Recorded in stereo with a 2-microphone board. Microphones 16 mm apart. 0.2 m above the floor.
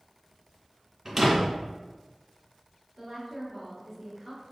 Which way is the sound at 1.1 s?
25° right (ahead or behind).